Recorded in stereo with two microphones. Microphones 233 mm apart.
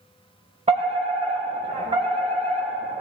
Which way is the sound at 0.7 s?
30° right (ahead or behind).